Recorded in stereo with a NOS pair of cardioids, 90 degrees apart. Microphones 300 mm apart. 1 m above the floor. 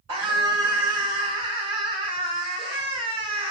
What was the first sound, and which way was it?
A scream, 60° right.